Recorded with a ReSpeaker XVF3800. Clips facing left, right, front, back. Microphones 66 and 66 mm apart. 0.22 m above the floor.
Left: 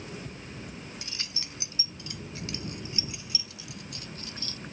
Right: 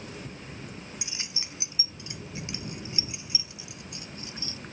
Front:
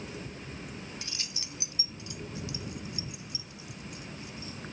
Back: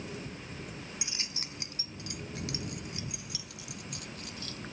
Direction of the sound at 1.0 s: 125° right.